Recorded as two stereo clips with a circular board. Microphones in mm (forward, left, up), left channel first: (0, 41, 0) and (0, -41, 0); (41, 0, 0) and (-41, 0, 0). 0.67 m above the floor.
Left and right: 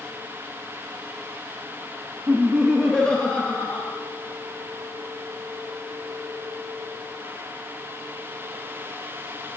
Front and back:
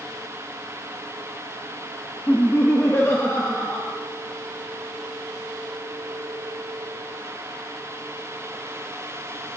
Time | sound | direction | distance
2.3 | laughter | 50° right | 1.0 m